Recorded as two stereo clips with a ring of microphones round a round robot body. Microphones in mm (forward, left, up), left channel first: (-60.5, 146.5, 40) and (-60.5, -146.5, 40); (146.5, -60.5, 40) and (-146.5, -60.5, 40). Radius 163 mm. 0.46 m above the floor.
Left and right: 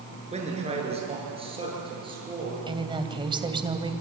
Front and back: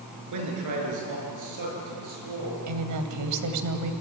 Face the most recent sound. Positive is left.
turn(degrees=-165)